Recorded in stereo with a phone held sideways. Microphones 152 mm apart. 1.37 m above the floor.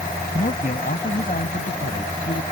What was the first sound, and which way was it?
A man speaking, 60° left (ahead or behind).